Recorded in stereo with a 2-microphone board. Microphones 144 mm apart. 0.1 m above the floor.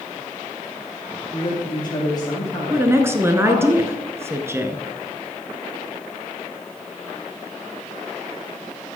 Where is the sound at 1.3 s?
30° left (ahead or behind), 4.5 m; by 3.7 s 15° left (ahead or behind), 4.5 m.